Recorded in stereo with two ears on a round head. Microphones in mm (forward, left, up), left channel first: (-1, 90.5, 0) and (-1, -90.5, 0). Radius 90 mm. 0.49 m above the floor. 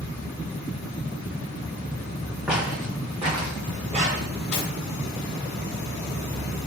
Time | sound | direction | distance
2.5 | footsteps | 5° right (ahead or behind) | 1.8 m
4.5 | cutlery clinking | 60° left (ahead or behind) | 1.2 m